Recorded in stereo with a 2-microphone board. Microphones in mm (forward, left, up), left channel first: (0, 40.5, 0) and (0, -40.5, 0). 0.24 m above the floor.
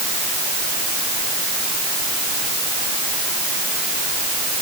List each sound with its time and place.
Only background noise.